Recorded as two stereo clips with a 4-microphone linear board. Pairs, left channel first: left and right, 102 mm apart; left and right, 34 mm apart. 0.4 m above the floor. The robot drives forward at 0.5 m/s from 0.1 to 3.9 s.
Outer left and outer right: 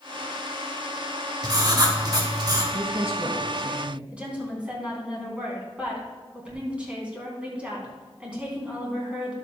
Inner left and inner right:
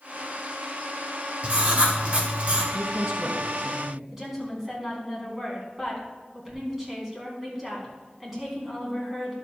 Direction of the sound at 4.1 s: 10° right (ahead or behind).